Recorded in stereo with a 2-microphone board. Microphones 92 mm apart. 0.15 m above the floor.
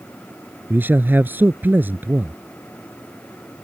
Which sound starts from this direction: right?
A man speaking, at 0.7 s.